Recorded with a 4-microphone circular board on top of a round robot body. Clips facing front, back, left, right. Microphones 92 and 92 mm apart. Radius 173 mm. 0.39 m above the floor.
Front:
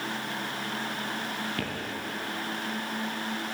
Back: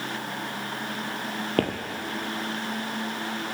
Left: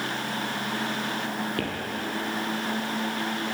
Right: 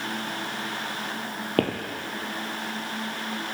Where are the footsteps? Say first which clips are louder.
Back 9 dB, right 6 dB; 135° right, 0.6 m.